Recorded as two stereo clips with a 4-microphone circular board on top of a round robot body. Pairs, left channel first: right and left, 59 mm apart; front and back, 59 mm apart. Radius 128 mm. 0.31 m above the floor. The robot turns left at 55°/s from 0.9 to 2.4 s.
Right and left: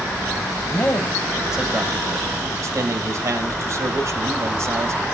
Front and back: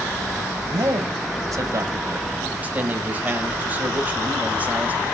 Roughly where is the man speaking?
Behind.